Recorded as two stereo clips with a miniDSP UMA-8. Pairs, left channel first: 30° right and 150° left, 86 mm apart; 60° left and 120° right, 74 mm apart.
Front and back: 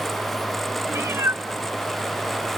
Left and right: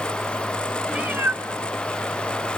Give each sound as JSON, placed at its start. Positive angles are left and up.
{"t": 0.9, "sound": "a cat meowing", "azimuth_deg": 170, "distance_m": 0.9}